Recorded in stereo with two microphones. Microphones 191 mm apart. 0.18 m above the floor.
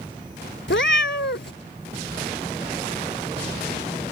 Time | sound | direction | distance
0.7 | a cat meowing | 80° left | ?